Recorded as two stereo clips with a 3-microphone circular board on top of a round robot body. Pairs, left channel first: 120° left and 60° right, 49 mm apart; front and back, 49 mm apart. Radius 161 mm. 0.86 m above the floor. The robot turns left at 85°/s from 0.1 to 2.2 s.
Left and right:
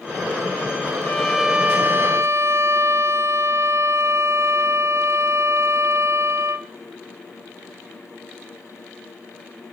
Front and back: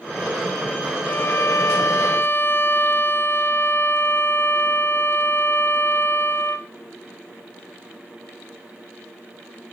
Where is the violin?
60° left, 1.6 m; by 6.7 s 40° right, 1.6 m.